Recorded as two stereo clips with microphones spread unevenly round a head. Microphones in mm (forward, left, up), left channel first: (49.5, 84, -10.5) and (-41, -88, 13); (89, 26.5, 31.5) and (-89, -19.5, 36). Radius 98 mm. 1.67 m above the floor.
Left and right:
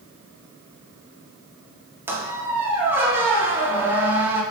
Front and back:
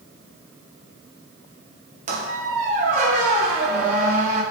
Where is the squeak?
Straight behind, 0.8 m.